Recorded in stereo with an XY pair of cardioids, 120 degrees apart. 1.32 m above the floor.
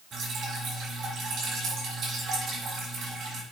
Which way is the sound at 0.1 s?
55° right.